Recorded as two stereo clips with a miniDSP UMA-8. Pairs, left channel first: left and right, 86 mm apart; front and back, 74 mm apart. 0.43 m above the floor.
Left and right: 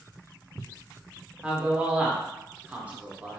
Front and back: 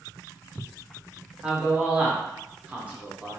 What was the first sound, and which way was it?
A man speaking, 140° right.